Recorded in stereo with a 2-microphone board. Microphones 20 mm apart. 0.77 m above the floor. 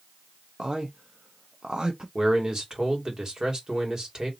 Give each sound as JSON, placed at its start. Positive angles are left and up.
{"t": 0.6, "sound": "a man speaking", "side_deg": -45, "distance_m": 0.6}
{"t": 2.1, "sound": "a man speaking", "side_deg": -30, "distance_m": 1.9}